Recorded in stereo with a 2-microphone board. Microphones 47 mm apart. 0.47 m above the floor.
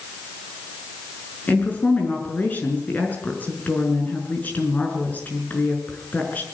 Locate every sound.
1.5 s a woman speaking: 35° left (ahead or behind), 5.5 m